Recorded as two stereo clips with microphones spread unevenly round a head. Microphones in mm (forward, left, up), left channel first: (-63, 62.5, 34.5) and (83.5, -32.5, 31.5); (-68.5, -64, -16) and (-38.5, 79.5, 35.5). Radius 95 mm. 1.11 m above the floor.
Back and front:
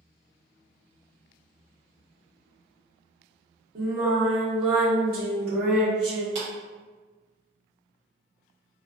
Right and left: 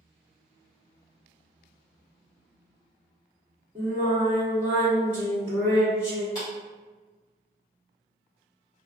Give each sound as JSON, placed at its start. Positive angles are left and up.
{"t": 3.8, "sound": "singing", "azimuth_deg": -5, "distance_m": 1.8}
{"t": 6.3, "sound": "a clap", "azimuth_deg": -35, "distance_m": 1.6}